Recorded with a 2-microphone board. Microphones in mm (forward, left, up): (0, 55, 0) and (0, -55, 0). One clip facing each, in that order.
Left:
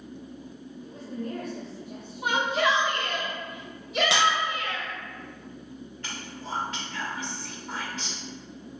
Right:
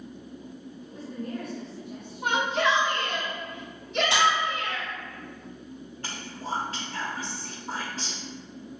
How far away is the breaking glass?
About 2.0 m.